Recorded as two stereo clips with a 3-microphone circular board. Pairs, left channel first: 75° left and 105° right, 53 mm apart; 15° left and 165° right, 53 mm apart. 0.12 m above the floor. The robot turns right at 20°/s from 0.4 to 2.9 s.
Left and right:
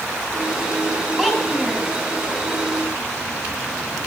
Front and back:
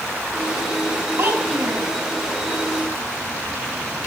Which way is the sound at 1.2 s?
170° left.